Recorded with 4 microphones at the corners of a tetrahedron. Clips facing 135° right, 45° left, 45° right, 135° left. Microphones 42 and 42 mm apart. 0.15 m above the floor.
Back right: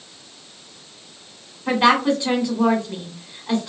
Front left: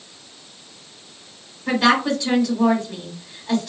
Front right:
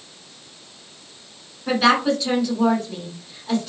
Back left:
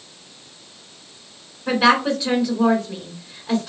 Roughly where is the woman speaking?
Behind.